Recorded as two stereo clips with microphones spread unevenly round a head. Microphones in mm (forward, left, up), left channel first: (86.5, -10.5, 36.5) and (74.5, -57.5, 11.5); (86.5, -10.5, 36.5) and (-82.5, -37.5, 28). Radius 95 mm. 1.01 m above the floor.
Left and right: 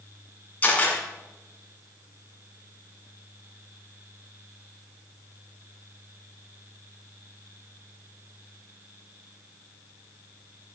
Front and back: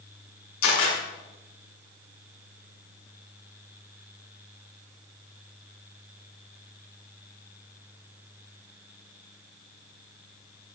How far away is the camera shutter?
About 8 m.